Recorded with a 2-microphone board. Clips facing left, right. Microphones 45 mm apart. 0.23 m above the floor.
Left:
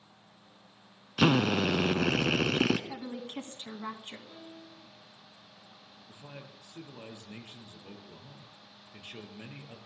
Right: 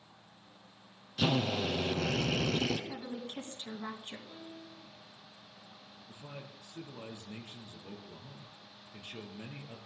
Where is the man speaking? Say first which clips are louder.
Even; 25° left (ahead or behind), 4 m.